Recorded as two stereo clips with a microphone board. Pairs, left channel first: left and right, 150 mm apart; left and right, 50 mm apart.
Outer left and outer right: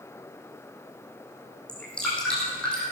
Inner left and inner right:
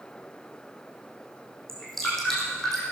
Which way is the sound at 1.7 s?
5° left (ahead or behind).